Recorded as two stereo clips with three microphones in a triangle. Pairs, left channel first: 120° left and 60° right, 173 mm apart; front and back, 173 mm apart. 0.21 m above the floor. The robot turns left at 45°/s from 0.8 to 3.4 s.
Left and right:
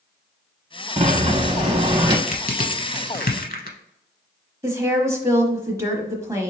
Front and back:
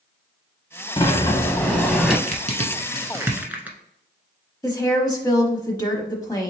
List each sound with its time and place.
1.0 s a sliding door: 40° right, 0.6 m; by 2.2 s 95° right, 0.6 m
2.3 s crushing: 150° left, 0.9 m; by 3.8 s 100° left, 0.9 m
4.6 s a woman speaking: 20° right, 1.0 m